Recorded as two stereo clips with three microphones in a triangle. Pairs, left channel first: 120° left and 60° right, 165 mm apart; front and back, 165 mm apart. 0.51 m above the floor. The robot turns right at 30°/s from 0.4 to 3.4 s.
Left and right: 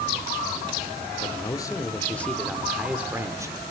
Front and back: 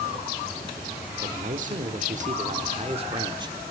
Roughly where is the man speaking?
Behind.